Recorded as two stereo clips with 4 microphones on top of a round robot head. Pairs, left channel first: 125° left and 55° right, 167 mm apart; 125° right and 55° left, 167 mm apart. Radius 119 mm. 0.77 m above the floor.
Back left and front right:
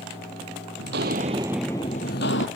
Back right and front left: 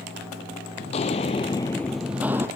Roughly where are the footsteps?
Right.